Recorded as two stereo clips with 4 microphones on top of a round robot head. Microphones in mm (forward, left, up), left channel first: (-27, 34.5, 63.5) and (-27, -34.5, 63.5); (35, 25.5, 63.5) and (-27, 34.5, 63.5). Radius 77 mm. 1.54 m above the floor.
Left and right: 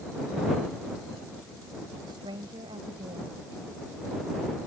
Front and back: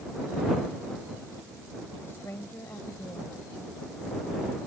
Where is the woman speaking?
70° right.